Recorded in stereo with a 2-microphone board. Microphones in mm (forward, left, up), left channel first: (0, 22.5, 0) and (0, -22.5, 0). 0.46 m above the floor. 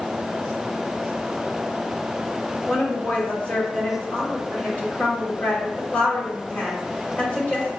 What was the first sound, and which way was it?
A woman speaking, 45° left (ahead or behind).